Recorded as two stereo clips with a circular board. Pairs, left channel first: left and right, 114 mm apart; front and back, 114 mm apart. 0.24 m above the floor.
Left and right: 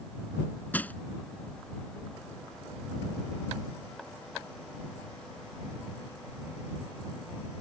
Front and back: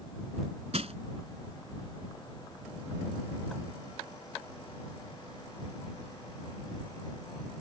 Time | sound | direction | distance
0.7 | crushing | 165° left | ?